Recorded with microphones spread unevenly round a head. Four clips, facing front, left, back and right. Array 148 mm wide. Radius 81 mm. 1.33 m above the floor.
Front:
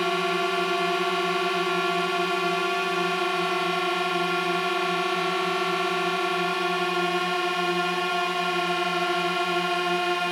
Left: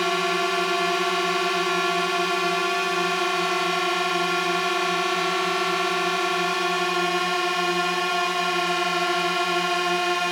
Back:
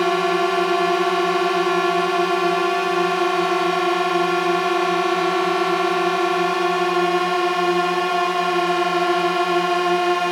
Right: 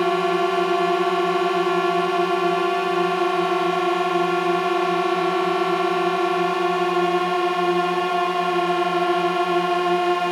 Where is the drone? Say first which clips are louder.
Right 4 dB, back 7 dB; 150° right.